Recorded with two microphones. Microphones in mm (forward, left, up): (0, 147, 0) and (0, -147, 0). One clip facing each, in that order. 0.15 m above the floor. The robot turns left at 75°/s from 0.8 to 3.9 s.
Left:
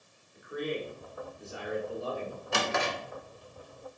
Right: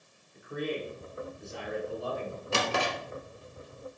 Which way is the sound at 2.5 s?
35° right (ahead or behind).